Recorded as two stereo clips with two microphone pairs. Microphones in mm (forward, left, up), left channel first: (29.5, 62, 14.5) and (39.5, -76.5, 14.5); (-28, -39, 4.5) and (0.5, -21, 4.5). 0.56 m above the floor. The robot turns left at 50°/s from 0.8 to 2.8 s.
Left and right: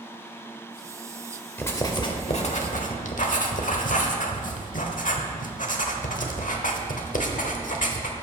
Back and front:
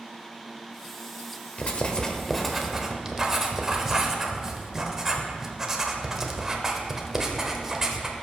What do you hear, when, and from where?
1.6 s writing: 170° left, 1.0 m; by 8.1 s 110° left, 1.0 m